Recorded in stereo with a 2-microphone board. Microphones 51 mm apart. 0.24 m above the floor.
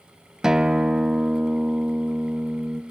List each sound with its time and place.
0.4 s a guitar: 10° right (ahead or behind), 0.6 m